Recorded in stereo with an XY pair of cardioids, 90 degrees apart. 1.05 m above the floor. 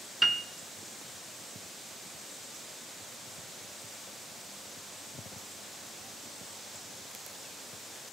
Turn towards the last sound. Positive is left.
turn(degrees=-20)